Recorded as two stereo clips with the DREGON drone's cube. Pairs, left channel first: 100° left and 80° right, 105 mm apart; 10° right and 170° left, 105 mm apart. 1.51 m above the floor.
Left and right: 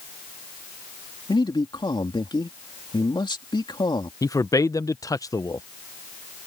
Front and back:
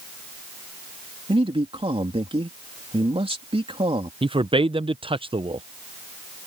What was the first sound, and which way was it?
A man speaking, 145° left.